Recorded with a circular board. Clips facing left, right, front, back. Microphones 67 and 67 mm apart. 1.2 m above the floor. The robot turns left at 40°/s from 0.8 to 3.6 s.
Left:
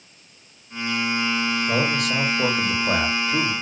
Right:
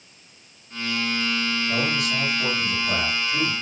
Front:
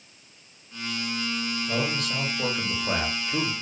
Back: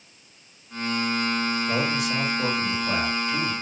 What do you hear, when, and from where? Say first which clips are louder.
1.7 s a man speaking: left 3 dB, back 3 dB; 120° left, 0.7 m; by 3.5 s 45° left, 0.7 m